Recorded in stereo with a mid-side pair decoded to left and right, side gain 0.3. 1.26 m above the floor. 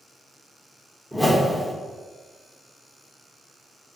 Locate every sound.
1.1 s a whoosh: 5° left, 1.1 m